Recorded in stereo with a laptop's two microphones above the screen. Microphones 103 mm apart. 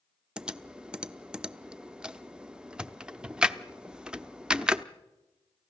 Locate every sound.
0.4 s typing on a keyboard: 10° right (ahead or behind), 0.8 m